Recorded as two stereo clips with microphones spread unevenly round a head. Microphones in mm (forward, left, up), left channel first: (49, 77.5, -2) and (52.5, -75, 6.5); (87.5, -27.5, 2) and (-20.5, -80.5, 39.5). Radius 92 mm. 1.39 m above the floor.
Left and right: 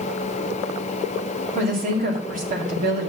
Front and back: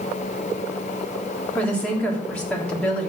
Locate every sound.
1.6 s a woman speaking: 55° right, 4 m